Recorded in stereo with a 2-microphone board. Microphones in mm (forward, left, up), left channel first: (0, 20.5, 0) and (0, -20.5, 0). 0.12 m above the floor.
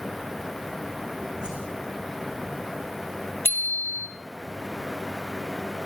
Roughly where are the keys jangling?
No keys jangling in this recording.